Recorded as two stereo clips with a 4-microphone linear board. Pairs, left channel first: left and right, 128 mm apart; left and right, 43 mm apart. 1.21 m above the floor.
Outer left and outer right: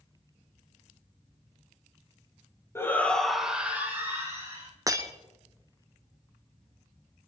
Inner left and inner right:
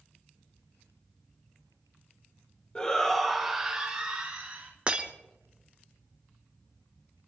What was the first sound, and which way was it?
A shout, 20° left (ahead or behind).